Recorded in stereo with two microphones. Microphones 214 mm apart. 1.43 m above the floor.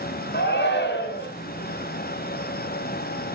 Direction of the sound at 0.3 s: 55° left (ahead or behind).